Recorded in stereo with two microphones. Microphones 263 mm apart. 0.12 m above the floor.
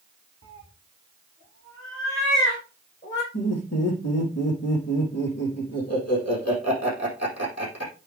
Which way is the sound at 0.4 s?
55° left (ahead or behind).